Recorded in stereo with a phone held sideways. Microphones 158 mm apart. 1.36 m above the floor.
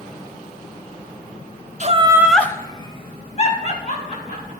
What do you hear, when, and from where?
1.8 s laughter: 50° right (ahead or behind), 0.6 m; by 4.5 s 50° left (ahead or behind), 2.5 m